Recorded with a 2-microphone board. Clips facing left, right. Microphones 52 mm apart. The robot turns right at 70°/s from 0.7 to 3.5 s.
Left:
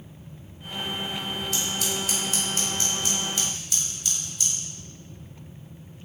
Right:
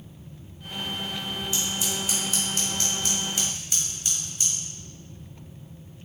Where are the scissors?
65° left (ahead or behind), 0.9 m; by 4.5 s 30° right (ahead or behind), 0.9 m.